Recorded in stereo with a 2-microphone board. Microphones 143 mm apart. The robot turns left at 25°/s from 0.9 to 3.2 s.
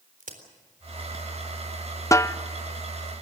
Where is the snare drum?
20° left (ahead or behind), 0.6 m.